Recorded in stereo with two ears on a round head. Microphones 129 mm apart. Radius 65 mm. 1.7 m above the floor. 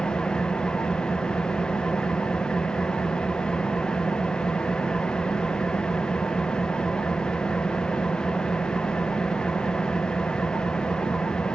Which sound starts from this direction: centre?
An engine running, at 0.0 s.